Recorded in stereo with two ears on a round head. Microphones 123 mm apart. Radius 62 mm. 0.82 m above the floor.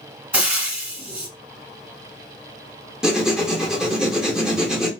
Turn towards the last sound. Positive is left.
turn(degrees=-5)  # may be behind; listen again after turning